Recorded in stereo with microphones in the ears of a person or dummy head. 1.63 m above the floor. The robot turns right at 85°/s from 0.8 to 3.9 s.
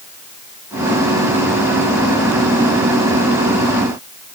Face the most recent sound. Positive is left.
No sound to turn to.